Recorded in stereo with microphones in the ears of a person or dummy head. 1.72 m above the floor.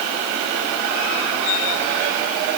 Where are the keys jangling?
No keys jangling in this recording.